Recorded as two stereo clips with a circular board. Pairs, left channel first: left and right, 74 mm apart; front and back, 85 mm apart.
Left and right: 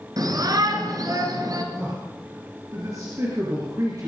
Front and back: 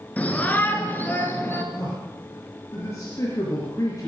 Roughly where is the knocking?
No knocking in this recording.